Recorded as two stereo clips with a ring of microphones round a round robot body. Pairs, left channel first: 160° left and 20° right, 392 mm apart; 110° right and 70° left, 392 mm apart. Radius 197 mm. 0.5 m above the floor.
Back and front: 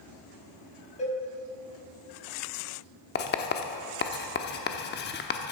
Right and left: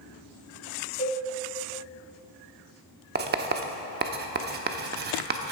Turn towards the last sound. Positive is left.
turn(degrees=115)